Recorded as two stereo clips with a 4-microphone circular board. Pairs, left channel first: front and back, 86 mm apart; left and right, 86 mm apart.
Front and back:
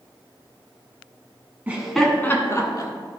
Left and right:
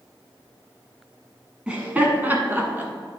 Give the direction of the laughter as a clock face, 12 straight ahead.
5 o'clock.